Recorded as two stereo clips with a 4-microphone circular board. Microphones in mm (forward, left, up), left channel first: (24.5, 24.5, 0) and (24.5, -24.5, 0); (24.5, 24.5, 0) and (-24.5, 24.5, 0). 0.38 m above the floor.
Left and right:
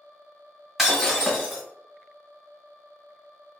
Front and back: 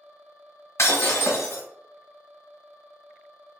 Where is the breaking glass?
5° right, 1.3 m.